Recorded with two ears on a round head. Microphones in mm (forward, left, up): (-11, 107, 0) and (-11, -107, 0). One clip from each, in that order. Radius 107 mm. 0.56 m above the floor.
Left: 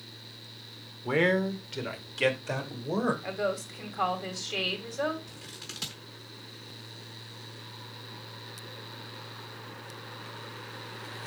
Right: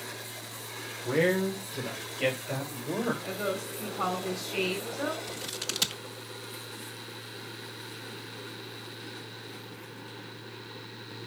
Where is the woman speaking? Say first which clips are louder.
Left 1 dB; 70° left (ahead or behind), 3 m.